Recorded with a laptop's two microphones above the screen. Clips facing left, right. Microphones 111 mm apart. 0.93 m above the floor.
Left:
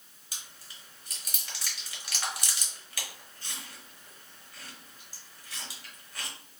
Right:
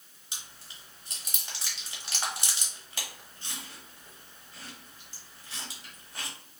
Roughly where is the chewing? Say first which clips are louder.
Right 1 dB; right.